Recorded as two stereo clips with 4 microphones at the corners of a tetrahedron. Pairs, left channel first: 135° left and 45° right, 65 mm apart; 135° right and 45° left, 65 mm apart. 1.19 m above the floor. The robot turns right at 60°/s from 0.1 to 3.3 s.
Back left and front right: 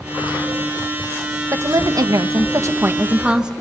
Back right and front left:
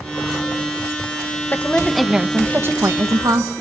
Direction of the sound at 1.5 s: 75° right.